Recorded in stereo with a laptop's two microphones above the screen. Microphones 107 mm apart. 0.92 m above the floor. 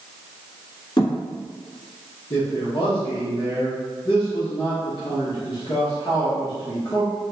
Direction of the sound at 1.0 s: 45° left (ahead or behind).